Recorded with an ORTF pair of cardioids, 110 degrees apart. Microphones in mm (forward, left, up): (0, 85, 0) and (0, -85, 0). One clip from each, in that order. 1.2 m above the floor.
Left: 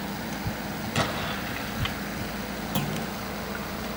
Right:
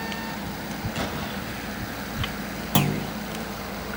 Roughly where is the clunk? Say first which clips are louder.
Right 8 dB; ahead right.